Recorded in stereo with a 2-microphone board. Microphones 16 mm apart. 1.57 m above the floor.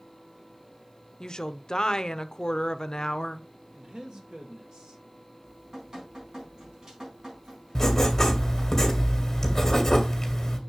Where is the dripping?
45° right (ahead or behind), 4 m.